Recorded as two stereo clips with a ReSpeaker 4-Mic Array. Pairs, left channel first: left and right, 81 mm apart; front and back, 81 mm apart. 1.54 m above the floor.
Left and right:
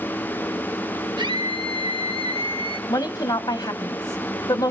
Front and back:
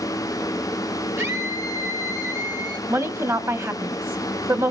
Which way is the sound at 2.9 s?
125° left.